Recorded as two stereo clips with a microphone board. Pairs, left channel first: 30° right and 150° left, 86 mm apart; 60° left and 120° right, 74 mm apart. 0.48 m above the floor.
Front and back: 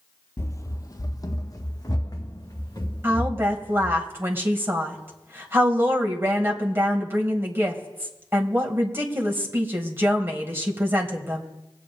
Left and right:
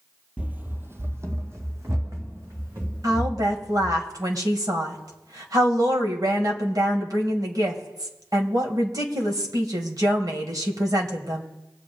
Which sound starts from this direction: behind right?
A woman speaking, at 3.0 s.